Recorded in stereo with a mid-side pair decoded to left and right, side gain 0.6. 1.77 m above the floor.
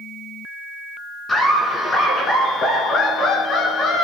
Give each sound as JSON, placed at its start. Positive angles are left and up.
{"t": 1.3, "sound": "laughter", "azimuth_deg": 20, "distance_m": 2.5}